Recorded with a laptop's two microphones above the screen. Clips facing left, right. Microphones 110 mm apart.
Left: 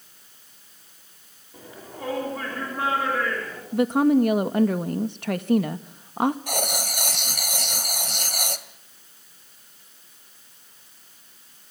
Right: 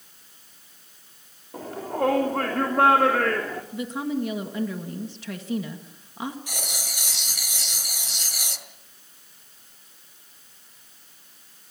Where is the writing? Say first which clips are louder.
Left 9 dB; 60° left (ahead or behind), 2 m.